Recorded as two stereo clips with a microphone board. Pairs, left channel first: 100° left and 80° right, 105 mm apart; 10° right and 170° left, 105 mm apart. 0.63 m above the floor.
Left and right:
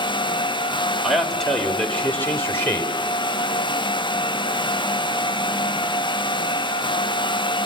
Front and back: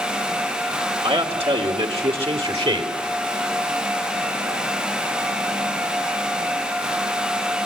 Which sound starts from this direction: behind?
A man speaking, at 1.0 s.